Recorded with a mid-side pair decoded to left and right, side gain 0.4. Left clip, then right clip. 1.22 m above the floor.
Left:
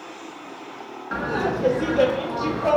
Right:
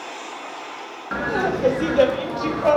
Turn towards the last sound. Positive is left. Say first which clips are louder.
# right 2 dB
turn(degrees=-30)